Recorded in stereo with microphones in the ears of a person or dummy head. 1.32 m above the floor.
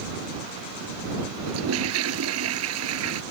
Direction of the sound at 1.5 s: 80° right.